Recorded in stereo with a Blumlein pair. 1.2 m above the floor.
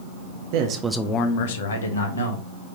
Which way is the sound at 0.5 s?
50° right.